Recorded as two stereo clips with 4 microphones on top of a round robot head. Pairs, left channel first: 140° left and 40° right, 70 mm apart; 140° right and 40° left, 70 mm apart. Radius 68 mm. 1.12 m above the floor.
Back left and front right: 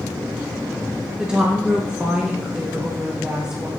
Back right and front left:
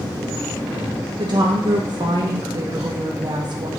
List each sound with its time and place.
1.2 s a woman speaking: 40° left, 1.0 m